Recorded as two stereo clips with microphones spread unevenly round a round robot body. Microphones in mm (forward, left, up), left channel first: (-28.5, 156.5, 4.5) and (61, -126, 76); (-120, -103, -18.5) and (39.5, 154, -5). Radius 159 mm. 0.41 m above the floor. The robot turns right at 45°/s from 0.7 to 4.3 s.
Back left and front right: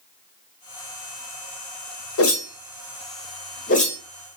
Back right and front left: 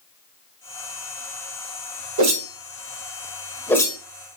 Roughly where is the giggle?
No giggle in this recording.